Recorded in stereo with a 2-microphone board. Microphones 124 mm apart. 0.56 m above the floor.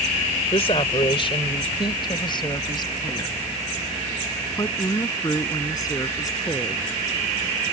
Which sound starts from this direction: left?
A woman speaking, at 0.5 s.